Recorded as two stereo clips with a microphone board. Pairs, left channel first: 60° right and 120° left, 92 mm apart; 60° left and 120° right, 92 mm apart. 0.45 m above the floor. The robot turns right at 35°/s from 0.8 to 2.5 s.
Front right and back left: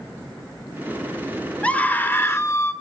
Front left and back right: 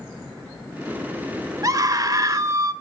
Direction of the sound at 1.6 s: 130° right.